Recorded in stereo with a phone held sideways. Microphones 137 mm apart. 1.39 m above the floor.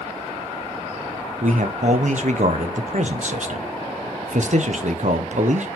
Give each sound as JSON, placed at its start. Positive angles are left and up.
{"t": 1.4, "sound": "a man speaking", "side_deg": -65, "distance_m": 0.6}